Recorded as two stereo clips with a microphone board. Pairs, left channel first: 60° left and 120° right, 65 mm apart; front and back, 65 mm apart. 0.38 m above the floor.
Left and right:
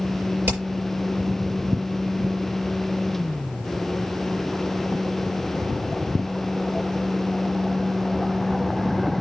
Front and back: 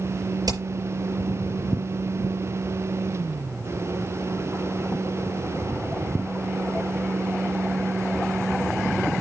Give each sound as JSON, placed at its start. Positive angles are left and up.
{"t": 0.5, "sound": "hammering", "azimuth_deg": 175, "distance_m": 6.0}